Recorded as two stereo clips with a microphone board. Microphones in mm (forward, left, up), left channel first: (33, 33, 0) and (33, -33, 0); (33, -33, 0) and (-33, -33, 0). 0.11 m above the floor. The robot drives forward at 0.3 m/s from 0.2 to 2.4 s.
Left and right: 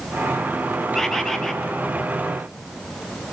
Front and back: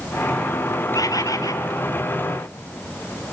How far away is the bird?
About 3 m.